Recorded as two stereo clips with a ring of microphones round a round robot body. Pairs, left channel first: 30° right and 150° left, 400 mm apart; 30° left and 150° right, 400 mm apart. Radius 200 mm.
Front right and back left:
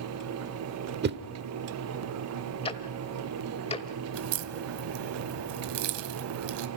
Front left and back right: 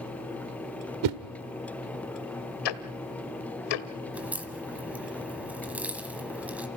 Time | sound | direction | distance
1.0 | a whoosh | 155° right | 1.1 m
2.6 | ticking | 45° left | 1.1 m
4.1 | a crack | 125° left | 1.2 m